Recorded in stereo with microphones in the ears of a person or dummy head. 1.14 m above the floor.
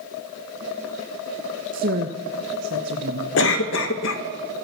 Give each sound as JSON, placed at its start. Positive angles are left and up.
{"t": 1.7, "sound": "a woman speaking", "side_deg": -40, "distance_m": 1.2}
{"t": 3.4, "sound": "a cough", "side_deg": 65, "distance_m": 1.4}